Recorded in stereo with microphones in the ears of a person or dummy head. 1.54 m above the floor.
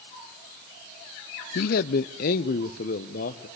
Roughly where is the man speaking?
Left.